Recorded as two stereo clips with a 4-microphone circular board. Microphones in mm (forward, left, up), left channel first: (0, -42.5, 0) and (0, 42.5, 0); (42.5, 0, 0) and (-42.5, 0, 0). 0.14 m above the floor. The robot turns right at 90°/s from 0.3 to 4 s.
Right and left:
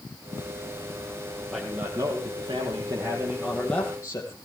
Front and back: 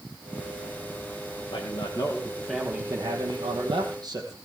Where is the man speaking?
5° right, 5 m; by 4.4 s 140° right, 5 m.